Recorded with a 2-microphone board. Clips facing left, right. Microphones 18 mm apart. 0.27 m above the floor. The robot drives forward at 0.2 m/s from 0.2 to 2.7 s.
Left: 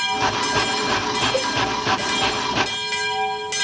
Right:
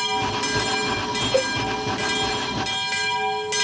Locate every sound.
1.3 s a cowbell: 10° right (ahead or behind), 0.6 m; by 1.5 s 15° right (ahead or behind), 0.6 m